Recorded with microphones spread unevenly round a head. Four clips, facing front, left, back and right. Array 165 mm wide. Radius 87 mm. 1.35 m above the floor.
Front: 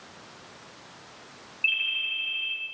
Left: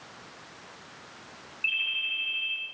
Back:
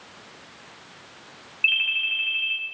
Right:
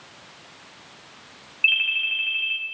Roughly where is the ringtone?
Right.